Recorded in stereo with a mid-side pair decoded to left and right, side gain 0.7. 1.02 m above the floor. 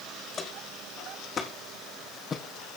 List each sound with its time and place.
0.3 s footsteps: 25° left, 4 m; by 2.4 s 20° left, 2 m